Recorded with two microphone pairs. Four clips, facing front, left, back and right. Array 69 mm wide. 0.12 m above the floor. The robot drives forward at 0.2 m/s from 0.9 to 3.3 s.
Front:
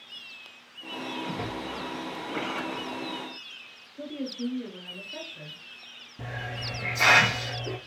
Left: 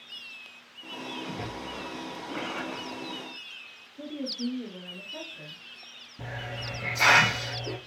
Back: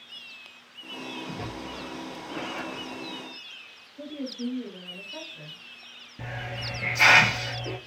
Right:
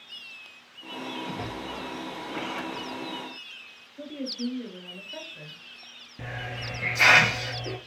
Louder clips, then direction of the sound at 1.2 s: Right 2 dB, front 3 dB; straight ahead.